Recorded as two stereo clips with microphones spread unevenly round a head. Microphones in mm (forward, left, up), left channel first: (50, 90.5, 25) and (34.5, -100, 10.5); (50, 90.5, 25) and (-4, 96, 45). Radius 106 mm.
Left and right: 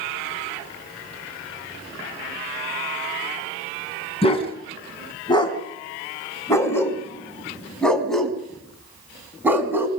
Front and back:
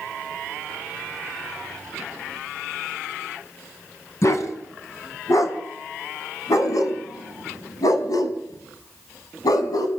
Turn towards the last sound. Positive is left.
turn(degrees=-15)